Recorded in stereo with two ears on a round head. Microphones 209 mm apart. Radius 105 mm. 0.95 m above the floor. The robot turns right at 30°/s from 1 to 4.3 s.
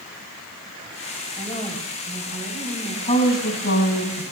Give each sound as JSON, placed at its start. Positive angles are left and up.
{"t": 1.4, "sound": "a woman speaking", "azimuth_deg": 10, "distance_m": 7.0}
{"t": 3.0, "sound": "a woman speaking", "azimuth_deg": 30, "distance_m": 5.5}